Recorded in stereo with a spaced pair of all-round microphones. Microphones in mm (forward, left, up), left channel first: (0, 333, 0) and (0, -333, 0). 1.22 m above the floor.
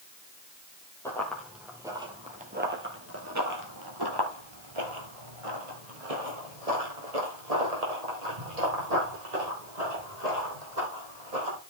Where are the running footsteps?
5° left (ahead or behind), 2 m; by 11.6 s 65° right (ahead or behind), 4.5 m.